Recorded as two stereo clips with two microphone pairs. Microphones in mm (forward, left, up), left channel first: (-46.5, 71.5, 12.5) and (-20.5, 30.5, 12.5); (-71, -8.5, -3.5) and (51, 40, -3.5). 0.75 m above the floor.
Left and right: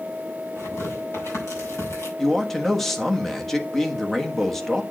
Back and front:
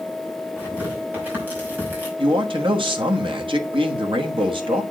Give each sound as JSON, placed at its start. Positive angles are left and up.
{"t": 0.6, "sound": "tearing paper", "azimuth_deg": 95, "distance_m": 5.5}
{"t": 2.2, "sound": "a man speaking", "azimuth_deg": 45, "distance_m": 1.4}